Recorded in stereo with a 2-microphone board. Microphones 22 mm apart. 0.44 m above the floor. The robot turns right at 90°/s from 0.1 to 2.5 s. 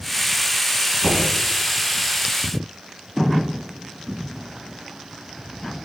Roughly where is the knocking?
Right.